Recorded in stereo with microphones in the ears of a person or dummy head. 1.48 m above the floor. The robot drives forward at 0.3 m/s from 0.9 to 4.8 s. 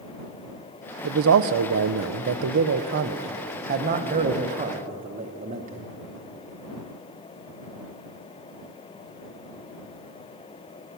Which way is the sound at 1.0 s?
70° right (ahead or behind).